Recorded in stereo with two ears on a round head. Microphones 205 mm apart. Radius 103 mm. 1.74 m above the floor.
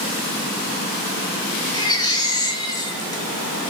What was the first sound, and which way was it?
A baby crying, 20° left (ahead or behind).